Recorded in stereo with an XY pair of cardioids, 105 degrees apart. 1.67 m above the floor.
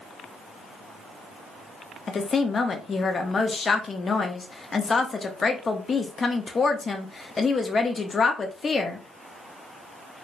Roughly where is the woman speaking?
Ahead left.